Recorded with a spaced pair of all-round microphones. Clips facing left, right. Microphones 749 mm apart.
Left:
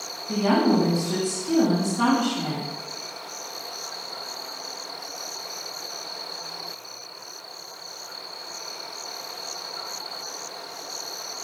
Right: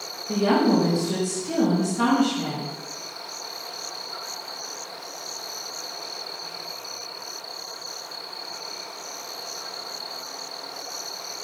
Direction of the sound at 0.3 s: 5° right (ahead or behind).